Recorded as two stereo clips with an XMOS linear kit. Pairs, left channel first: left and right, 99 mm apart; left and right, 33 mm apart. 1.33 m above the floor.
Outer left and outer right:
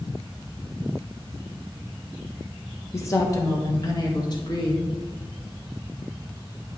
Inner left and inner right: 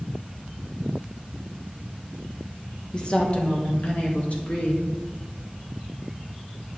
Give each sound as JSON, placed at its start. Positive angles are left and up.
{"t": 2.9, "sound": "a woman speaking", "side_deg": 30, "distance_m": 1.3}